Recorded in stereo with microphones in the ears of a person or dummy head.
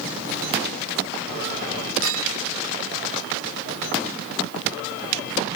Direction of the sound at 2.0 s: 75° right (ahead or behind).